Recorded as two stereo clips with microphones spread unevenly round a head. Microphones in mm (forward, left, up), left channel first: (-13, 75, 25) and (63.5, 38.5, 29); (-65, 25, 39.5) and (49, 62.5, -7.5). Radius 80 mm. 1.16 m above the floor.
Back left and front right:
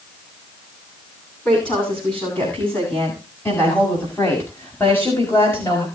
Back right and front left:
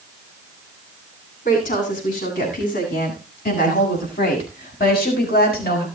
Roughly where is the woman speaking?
Behind right.